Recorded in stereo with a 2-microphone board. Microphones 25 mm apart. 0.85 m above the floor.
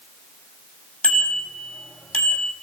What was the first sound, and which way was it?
A bicycle bell, 60° left (ahead or behind).